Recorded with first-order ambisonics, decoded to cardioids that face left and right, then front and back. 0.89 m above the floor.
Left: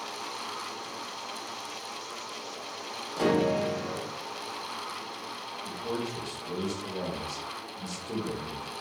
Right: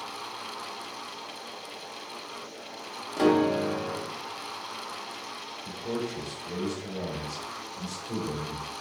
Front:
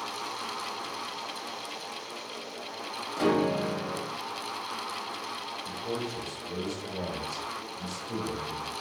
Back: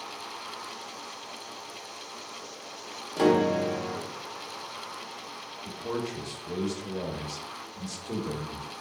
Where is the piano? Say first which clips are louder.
Right 2 dB, back 3 dB; 155° right, 0.7 m.